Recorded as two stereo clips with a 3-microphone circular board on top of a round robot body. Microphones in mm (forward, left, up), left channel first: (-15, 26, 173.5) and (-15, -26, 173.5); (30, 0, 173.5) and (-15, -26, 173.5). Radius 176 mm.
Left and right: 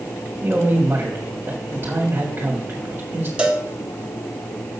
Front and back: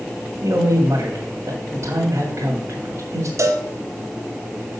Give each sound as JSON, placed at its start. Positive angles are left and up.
{"t": 0.4, "sound": "a man speaking", "azimuth_deg": -135, "distance_m": 2.0}
{"t": 3.4, "sound": "a cowbell", "azimuth_deg": -160, "distance_m": 1.7}